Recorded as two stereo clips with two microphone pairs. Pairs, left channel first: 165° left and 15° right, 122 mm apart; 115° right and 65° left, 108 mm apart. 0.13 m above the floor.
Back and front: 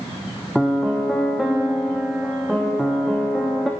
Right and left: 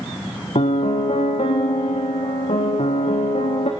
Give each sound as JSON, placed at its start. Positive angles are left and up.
{"t": 0.6, "sound": "a piano", "azimuth_deg": -105, "distance_m": 4.5}